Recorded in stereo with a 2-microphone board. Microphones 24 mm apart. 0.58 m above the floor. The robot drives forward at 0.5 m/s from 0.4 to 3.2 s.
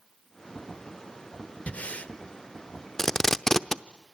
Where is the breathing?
70° left (ahead or behind), 1.2 m.